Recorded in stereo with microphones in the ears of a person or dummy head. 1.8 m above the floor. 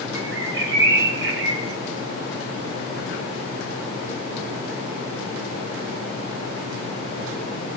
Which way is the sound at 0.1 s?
60° right (ahead or behind).